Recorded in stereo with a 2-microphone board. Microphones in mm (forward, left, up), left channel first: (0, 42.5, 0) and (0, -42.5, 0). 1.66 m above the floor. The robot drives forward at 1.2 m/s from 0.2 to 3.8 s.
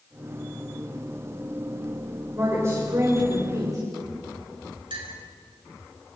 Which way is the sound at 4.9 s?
75° right (ahead or behind).